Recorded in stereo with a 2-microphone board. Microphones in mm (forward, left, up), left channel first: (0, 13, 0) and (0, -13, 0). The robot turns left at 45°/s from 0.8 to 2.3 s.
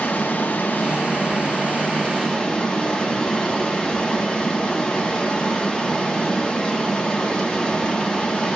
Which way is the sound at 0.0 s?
95° left.